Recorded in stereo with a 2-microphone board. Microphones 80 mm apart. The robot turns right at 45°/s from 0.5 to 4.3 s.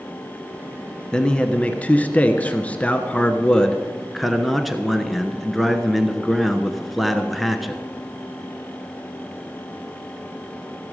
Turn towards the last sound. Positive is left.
turn(degrees=0)  # may be behind; listen again after turning